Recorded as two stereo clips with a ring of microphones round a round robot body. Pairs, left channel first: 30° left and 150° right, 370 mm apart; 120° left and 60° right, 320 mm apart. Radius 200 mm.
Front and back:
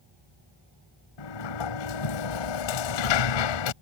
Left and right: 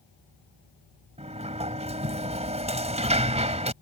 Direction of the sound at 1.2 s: 10° left.